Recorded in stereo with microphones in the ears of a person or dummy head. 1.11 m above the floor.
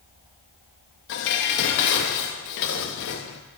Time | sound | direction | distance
1.1 | dishes clattering | 65° left (ahead or behind) | 1.0 m